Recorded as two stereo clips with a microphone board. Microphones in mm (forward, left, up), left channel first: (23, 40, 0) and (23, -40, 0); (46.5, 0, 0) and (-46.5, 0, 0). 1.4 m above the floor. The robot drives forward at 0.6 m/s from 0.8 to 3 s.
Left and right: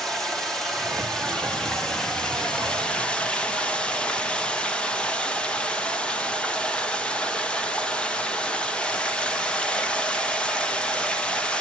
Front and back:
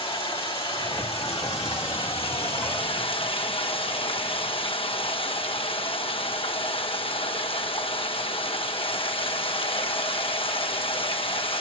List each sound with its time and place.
0.0 s running water: 5° left, 3 m; by 11.6 s 15° left, 1.6 m